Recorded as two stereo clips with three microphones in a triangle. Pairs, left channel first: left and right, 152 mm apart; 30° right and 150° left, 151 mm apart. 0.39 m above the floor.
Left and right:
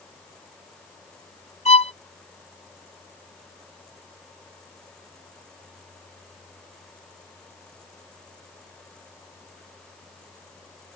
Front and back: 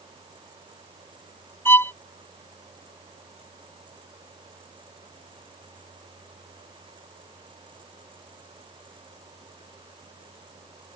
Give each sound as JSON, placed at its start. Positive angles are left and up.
{"t": 1.6, "sound": "a violin", "azimuth_deg": 45}